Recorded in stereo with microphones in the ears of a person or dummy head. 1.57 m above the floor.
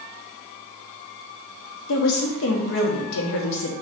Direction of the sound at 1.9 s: 65° left (ahead or behind).